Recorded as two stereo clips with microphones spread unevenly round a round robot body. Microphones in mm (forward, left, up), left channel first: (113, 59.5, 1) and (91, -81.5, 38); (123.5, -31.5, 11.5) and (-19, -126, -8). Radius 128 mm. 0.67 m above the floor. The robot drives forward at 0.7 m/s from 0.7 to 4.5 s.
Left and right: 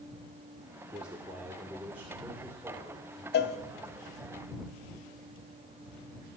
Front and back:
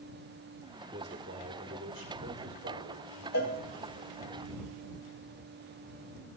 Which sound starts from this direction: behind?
A man speaking, at 0.9 s.